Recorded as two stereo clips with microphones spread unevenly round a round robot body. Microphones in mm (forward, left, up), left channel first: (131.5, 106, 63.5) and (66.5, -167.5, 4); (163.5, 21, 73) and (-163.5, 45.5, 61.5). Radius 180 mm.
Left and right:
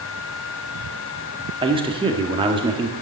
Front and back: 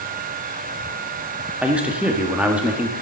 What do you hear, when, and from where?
1.6 s a man speaking: 105° right, 1.4 m